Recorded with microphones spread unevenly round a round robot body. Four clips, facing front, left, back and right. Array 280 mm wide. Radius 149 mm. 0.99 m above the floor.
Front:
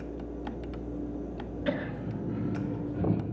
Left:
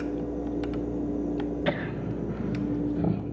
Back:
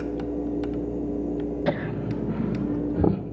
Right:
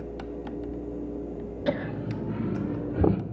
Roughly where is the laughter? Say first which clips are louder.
Even, back 5 dB; behind left.